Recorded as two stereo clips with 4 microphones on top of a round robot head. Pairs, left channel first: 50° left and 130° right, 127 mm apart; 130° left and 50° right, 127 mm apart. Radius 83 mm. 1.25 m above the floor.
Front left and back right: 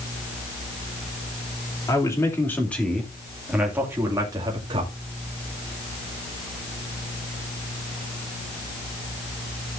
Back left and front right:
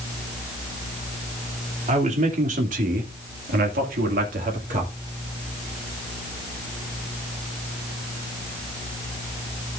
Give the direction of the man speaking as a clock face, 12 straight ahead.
12 o'clock.